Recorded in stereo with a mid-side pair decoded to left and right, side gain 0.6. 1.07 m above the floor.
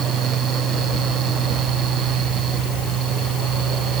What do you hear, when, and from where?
0.0 s a fan: 50° right